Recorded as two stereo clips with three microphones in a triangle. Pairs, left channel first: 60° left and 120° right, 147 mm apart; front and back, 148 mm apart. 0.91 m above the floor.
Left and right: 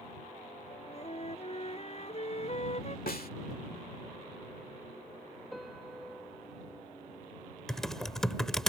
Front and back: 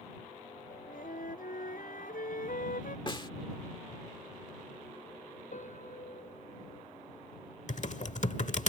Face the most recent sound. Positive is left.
turn(degrees=-25)